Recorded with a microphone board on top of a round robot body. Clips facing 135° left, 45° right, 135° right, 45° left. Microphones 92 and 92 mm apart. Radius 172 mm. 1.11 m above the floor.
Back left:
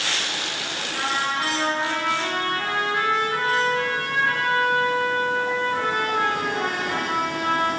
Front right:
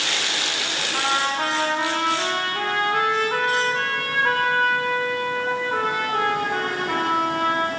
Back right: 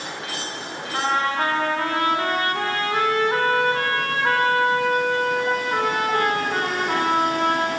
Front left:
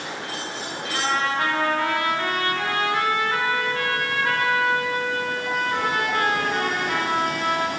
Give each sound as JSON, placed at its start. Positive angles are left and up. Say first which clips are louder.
{"t": 0.9, "sound": "a trumpet", "louder": "front right 2 dB, back right 2 dB", "azimuth_deg": -80, "distance_m": 4.5}